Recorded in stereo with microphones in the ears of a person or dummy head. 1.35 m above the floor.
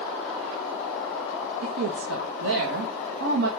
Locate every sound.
1.6 s a woman speaking: 70° right (ahead or behind), 1.3 m